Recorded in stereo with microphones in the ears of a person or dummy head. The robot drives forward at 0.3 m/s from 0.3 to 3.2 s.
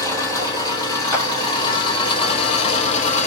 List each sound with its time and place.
0.0 s an engine running: 25° left (ahead or behind), 1.7 m; by 3.3 s 45° left (ahead or behind), 1.0 m
1.1 s a clap: 20° left (ahead or behind), 1.8 m